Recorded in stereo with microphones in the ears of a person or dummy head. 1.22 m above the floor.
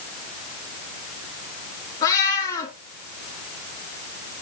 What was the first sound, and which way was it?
A cat meowing, 15° left (ahead or behind).